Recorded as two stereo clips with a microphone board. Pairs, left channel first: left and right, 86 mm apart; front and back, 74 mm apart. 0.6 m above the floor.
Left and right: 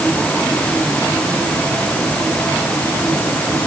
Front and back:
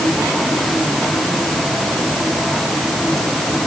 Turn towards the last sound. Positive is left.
No sound to turn to.